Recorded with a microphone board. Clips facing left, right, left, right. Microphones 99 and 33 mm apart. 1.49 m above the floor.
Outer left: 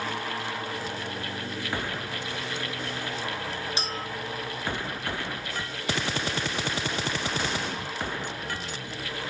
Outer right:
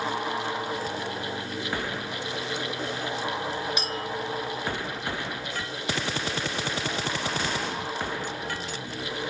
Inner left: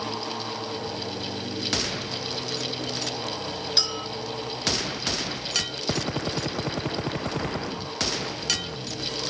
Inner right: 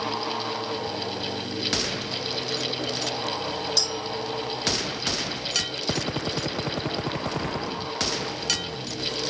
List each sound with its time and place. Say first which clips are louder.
3.8 s a clink: outer right 2 dB, inner left 1 dB; 30° left (ahead or behind), 4 m